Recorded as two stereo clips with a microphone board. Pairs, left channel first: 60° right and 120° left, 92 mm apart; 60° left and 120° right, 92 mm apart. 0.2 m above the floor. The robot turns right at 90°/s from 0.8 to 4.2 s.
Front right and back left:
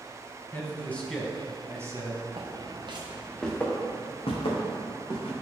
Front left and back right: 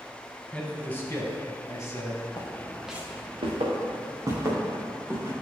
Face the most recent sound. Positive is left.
turn(degrees=-55)